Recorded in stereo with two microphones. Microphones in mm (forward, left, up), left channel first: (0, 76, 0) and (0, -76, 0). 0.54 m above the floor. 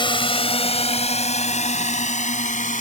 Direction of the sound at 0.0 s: 35° left (ahead or behind).